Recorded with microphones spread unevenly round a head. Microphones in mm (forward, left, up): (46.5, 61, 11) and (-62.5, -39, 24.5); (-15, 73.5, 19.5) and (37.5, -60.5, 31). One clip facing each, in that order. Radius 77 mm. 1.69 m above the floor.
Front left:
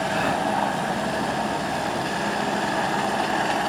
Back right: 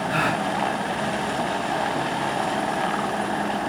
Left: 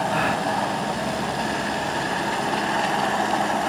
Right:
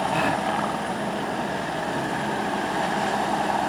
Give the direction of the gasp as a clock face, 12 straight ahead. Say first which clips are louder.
Back right 1 dB, even; 5 o'clock.